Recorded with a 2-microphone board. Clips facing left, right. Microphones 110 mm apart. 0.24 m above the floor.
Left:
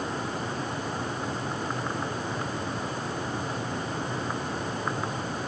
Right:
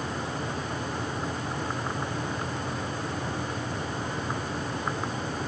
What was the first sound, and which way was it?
Only background noise.